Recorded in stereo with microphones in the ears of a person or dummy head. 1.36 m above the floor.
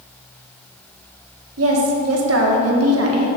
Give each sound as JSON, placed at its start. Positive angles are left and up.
{"t": 1.6, "sound": "a woman speaking", "side_deg": -80, "distance_m": 1.4}